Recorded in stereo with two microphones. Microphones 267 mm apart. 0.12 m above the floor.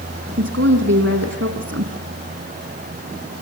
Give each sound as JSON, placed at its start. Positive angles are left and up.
{"t": 0.4, "sound": "a woman speaking", "side_deg": -65, "distance_m": 4.5}